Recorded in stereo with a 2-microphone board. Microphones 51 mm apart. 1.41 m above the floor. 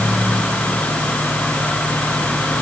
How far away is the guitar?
I don't hear a guitar.